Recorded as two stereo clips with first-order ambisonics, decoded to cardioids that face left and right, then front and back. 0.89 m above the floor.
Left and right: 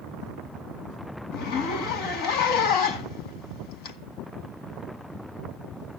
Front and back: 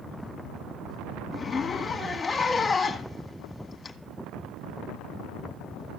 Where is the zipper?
75° left, 1.9 m.